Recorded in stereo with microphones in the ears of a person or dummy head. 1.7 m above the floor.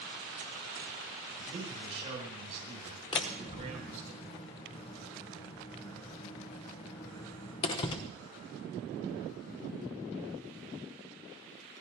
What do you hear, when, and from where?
1.5 s a man speaking: 30° right (ahead or behind), 9 m; by 4.1 s 45° right (ahead or behind), 8 m
3.1 s a door slam: 25° left (ahead or behind), 0.9 m